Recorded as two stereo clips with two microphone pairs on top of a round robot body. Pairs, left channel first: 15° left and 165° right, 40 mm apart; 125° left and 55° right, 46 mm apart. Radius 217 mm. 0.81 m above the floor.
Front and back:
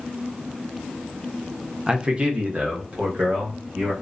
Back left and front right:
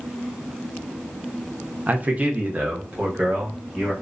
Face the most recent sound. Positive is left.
turn(degrees=-115)